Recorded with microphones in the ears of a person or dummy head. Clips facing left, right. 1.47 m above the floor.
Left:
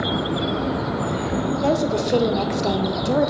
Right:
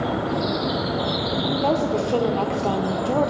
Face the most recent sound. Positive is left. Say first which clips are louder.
# left 1 dB
turn(degrees=25)  # may be behind; listen again after turning